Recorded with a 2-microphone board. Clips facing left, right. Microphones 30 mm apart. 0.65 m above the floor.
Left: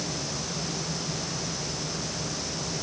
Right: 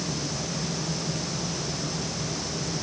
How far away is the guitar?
I don't hear a guitar.